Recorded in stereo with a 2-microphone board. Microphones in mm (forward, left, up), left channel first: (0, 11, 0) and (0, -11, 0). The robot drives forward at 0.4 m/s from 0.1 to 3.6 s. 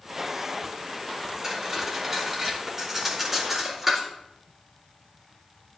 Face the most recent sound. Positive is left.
turn(degrees=-10)  # may be behind; listen again after turning